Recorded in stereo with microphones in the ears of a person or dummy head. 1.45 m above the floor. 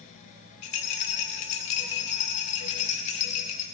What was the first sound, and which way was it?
A rattle, 45° left (ahead or behind).